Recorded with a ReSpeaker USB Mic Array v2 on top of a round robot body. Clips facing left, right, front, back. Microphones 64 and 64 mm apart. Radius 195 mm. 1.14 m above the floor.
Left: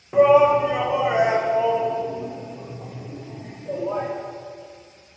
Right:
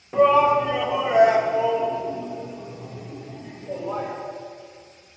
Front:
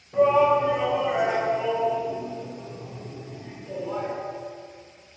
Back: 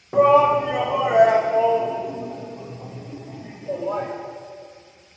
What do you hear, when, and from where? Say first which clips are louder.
0.1 s a shout: left 2 dB, back 4 dB; 170° left, 1.5 m; by 4.1 s 145° left, 3.5 m